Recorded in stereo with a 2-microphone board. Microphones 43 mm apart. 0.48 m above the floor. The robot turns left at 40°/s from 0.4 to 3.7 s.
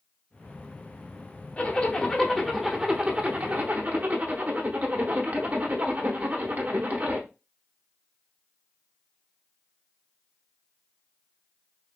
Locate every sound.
1.6 s a zipper: 40° left, 0.8 m; by 7.3 s 45° right, 0.8 m